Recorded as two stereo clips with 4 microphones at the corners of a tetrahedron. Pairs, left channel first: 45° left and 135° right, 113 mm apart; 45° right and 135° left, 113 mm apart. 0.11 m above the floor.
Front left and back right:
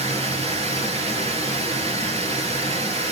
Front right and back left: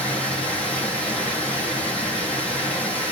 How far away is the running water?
About 1.8 m.